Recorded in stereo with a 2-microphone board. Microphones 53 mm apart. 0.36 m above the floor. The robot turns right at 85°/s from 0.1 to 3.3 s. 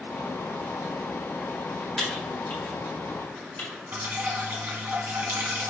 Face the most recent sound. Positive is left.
turn(degrees=-40)  # may be behind; listen again after turning